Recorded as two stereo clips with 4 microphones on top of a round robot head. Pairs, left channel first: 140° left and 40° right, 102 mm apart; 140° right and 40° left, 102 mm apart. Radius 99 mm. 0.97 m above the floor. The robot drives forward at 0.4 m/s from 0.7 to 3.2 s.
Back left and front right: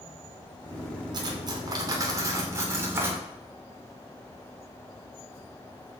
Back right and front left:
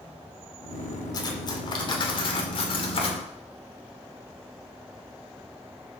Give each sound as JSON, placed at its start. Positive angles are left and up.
{"t": 1.1, "sound": "cutlery clinking", "azimuth_deg": -90, "distance_m": 2.0}